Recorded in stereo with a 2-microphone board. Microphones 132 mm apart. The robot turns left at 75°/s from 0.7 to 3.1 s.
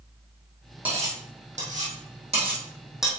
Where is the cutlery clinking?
15° right (ahead or behind), 3 m; by 3.1 s centre (ahead or behind), 3 m.